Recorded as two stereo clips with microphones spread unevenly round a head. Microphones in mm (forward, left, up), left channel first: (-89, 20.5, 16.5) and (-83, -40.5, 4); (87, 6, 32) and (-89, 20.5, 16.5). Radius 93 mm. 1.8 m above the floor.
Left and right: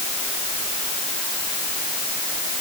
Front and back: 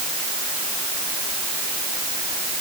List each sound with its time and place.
Only background noise.